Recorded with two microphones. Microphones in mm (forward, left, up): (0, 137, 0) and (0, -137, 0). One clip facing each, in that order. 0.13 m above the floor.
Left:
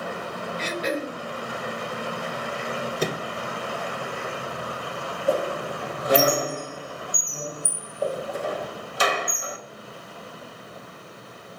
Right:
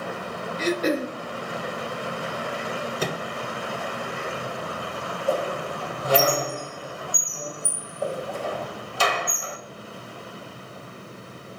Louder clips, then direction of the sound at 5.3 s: Left 1 dB; 20° left (ahead or behind).